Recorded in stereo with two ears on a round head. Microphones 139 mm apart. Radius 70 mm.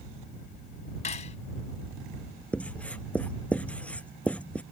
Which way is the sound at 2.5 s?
10° left (ahead or behind).